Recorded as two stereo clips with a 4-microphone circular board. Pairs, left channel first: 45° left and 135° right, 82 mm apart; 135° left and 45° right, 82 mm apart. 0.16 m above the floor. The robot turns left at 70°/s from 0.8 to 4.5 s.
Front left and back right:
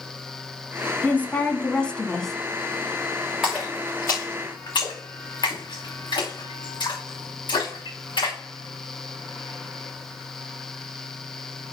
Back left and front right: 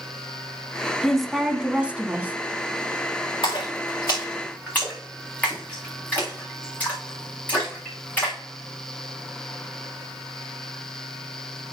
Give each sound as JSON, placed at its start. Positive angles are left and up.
{"t": 1.0, "sound": "a woman speaking", "azimuth_deg": 55, "distance_m": 1.1}
{"t": 3.4, "sound": "a splash", "azimuth_deg": 140, "distance_m": 4.5}